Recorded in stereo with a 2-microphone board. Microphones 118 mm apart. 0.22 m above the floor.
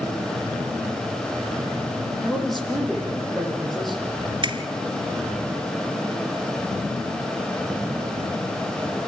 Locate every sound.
2.2 s a man speaking: centre (ahead or behind), 9.5 m
4.4 s a finger snap: 45° right (ahead or behind), 2 m